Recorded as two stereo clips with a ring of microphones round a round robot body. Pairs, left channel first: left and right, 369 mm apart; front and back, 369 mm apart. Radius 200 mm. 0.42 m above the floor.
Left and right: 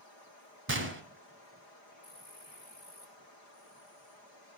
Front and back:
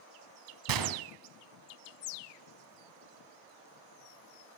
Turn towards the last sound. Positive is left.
turn(degrees=-150)